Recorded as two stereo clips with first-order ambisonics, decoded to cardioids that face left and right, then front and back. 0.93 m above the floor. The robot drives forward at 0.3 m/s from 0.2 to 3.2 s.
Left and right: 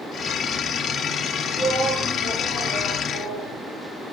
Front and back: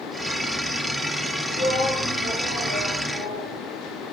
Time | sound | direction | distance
1.6 | a shout | 165° left | 7.5 m